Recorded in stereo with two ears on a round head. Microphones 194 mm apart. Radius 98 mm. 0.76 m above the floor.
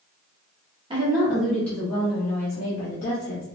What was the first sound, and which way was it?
A woman speaking, 20° right (ahead or behind).